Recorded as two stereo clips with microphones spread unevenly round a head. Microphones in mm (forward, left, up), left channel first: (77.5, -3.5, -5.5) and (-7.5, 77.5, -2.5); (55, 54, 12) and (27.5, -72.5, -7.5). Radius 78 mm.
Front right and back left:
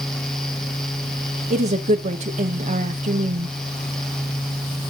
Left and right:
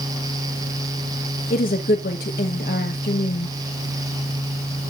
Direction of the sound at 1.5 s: 110° left.